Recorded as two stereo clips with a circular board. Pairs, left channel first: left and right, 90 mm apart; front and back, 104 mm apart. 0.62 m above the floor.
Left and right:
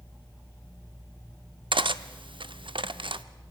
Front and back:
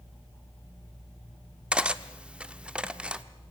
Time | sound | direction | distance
1.7 | cutlery clinking | 100° right | 0.7 m